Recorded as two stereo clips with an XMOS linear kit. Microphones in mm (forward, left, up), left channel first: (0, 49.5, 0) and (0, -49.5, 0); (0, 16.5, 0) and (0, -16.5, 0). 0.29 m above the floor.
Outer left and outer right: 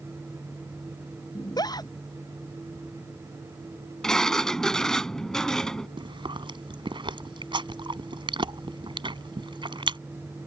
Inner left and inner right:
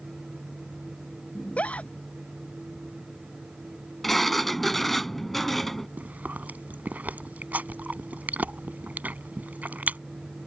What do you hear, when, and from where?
1.4 s a scream: 45° left (ahead or behind)
4.0 s a sliding door: 5° left (ahead or behind)
6.0 s chewing: 60° right (ahead or behind)